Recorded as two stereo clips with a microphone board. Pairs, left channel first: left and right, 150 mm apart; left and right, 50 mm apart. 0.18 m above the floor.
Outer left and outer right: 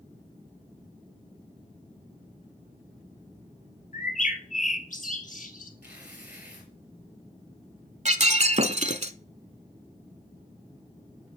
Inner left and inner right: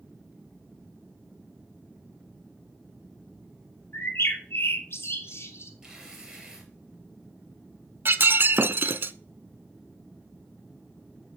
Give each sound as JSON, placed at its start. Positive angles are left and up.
{"t": 3.9, "sound": "a bird", "side_deg": 60, "distance_m": 1.7}
{"t": 5.8, "sound": "tearing paper", "side_deg": -10, "distance_m": 4.0}
{"t": 8.1, "sound": "breaking glass", "side_deg": -50, "distance_m": 0.6}